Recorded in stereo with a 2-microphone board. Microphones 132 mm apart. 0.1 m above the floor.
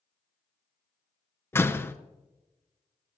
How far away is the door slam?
About 1.0 m.